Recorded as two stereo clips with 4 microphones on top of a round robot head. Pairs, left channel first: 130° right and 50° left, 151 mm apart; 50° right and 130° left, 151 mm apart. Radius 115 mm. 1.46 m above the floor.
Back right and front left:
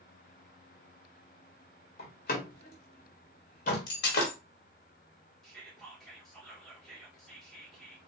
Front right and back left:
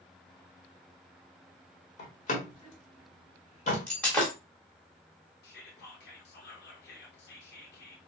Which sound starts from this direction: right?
A door slam, at 2.0 s.